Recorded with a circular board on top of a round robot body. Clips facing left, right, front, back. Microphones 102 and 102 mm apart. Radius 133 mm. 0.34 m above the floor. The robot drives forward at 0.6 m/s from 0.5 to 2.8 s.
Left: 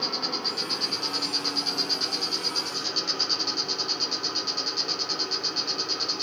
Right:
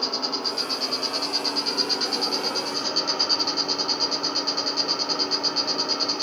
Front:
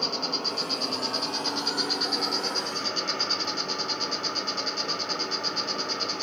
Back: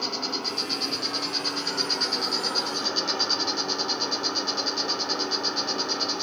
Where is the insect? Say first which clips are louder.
Right 3 dB, even; 40° right, 1.5 m; by 6.2 s 115° right, 1.1 m.